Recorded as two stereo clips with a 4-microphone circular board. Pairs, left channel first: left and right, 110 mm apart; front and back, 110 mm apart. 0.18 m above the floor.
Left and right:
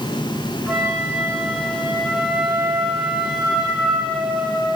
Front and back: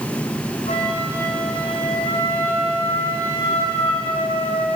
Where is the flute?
10° right, 5.5 m.